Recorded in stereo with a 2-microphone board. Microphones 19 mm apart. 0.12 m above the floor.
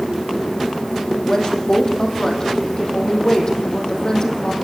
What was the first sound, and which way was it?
A woman speaking, 35° left (ahead or behind).